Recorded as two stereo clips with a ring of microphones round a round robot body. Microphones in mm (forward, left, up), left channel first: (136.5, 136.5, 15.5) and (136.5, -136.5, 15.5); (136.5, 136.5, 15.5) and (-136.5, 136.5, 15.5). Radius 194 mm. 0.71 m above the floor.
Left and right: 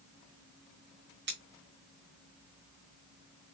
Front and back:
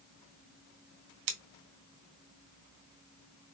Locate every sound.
1.3 s scissors: 155° right, 0.8 m